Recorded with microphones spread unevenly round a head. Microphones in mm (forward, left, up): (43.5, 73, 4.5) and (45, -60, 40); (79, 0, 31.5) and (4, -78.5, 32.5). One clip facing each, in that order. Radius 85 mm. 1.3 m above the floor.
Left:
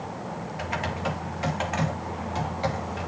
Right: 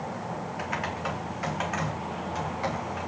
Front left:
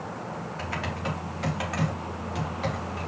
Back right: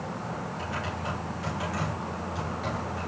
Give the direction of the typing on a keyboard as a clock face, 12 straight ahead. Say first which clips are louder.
Left 4 dB, front left 1 dB; 11 o'clock.